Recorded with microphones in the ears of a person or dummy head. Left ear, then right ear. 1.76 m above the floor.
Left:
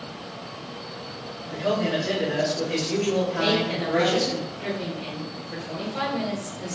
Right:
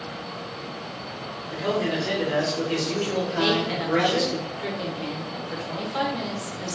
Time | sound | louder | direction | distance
1.5 | a man speaking | left 1 dB | 40° right (ahead or behind) | 1.6 m
3.4 | a woman speaking | even | 60° right (ahead or behind) | 1.3 m